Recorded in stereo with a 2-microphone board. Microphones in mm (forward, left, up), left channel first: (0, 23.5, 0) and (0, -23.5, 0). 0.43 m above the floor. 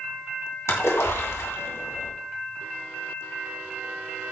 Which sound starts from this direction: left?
A splash, at 0.7 s.